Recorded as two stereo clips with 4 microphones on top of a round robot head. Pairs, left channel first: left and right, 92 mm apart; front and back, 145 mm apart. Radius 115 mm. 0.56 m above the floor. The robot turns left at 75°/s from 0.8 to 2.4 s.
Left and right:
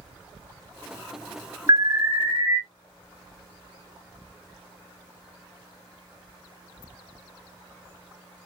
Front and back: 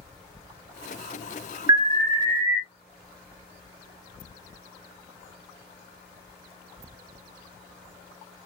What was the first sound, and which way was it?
An alarm, 120° right.